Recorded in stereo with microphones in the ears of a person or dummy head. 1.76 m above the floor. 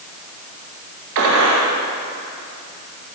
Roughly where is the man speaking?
I don't hear a man speaking.